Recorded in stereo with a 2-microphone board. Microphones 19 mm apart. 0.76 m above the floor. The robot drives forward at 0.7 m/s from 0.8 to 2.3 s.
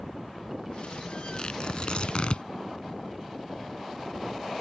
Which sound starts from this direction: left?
Tearing paper, at 1.4 s.